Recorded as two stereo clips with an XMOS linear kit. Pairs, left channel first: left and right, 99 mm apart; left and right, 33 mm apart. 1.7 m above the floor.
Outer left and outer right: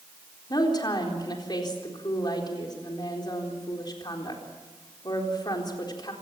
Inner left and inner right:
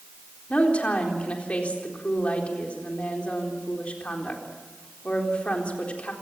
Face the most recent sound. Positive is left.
turn(degrees=45)  # may be behind; listen again after turning